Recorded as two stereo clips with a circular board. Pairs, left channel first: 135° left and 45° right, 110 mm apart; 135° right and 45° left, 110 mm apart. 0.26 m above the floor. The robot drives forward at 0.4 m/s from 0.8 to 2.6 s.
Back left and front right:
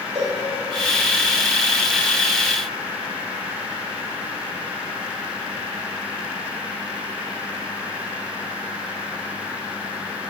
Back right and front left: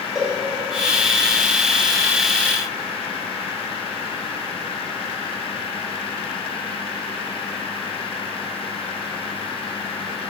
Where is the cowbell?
40° right, 3 m.